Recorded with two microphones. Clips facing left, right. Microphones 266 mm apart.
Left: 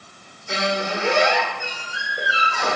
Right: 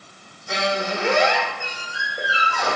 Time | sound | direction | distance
0.5 | a squeak | 25° left (ahead or behind) | 1.3 m